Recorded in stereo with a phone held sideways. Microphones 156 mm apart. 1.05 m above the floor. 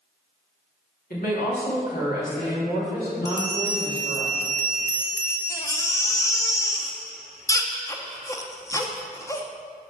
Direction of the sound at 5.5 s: 20° left (ahead or behind).